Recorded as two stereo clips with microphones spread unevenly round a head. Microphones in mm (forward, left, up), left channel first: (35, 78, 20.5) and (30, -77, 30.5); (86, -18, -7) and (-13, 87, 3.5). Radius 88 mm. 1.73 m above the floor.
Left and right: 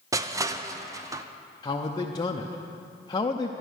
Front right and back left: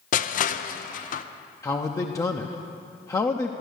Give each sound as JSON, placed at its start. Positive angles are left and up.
{"t": 0.1, "sound": "crushing", "azimuth_deg": -25, "distance_m": 0.5}
{"t": 1.6, "sound": "a man speaking", "azimuth_deg": 25, "distance_m": 0.7}